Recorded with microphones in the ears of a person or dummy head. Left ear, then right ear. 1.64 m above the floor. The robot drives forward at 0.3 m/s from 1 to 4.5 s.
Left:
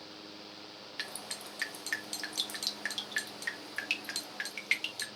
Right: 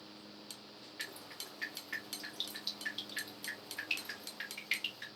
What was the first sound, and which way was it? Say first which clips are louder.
Dripping: left 4 dB; 65° left (ahead or behind).